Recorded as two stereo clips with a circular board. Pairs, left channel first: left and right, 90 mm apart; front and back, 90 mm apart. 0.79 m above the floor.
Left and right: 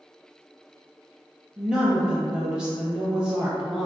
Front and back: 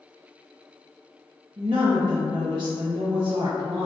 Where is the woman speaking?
170° right, 0.6 m.